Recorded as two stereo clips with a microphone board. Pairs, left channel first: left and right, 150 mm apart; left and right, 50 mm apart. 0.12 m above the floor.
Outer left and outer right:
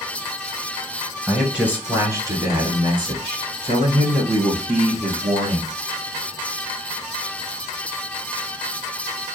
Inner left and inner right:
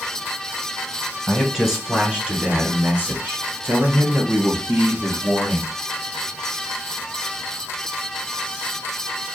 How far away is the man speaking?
About 1.4 m.